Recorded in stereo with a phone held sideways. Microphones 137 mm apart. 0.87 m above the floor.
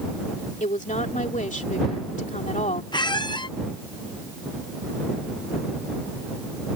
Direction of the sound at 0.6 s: 65° left (ahead or behind).